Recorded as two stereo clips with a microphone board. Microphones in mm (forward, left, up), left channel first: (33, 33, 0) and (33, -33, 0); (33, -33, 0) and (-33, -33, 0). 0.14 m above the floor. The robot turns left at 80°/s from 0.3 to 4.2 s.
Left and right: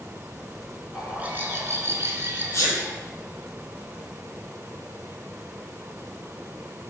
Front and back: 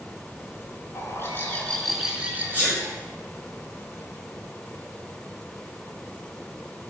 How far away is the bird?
About 0.7 m.